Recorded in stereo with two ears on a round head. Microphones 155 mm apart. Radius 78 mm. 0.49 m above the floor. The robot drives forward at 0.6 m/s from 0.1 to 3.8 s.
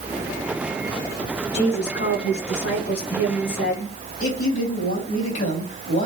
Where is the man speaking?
45° left (ahead or behind), 4.5 m.